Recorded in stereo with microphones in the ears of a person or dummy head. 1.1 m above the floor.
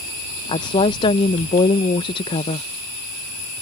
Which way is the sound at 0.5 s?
25° left (ahead or behind).